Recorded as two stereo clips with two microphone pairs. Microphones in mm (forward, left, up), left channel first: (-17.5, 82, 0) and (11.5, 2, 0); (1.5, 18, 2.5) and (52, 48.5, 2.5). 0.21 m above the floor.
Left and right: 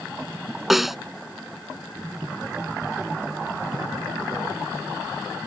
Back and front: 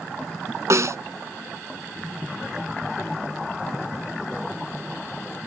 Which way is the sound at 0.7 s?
20° left.